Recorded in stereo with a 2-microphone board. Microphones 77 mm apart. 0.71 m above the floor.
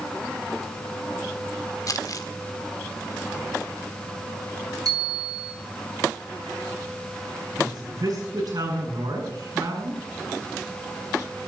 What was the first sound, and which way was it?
Crumpling, 50° left (ahead or behind).